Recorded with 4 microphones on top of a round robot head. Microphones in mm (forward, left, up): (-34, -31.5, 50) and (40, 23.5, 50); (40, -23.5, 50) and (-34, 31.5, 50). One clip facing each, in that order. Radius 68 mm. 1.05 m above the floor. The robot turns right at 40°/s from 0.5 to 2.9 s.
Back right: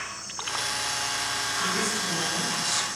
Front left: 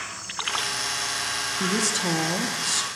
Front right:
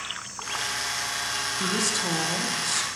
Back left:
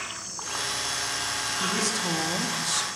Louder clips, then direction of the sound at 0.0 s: Front left 3 dB, front right 1 dB; 120° left.